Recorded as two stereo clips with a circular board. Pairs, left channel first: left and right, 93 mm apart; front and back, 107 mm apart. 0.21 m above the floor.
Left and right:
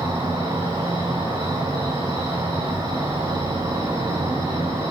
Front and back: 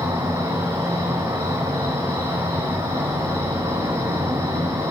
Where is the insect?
130° right, 4 m.